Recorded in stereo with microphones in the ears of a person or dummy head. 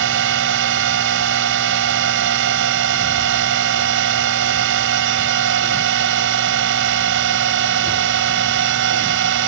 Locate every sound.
0.0 s a drone: 65° right (ahead or behind)